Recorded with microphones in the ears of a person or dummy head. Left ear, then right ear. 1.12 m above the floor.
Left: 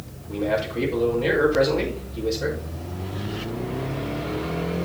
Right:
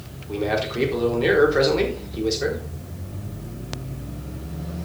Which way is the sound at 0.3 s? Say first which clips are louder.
Even; 35° right (ahead or behind).